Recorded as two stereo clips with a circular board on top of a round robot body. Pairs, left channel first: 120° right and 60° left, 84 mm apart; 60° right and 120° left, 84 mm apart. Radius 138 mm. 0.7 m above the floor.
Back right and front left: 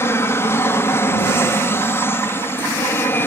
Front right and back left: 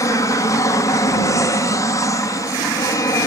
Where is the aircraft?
80° right; by 3.3 s 75° right.